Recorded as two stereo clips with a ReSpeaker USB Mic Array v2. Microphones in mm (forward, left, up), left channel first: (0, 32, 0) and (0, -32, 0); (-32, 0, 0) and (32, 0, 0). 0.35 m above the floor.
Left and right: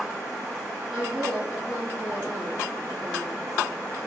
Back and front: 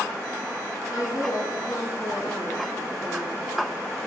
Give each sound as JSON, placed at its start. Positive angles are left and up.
{"t": 0.9, "sound": "a woman speaking", "azimuth_deg": -175, "distance_m": 4.5}